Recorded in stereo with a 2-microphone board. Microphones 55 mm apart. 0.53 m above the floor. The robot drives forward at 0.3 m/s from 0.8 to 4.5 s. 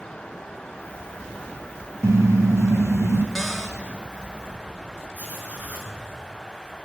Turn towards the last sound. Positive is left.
turn(degrees=-30)  # may be behind; listen again after turning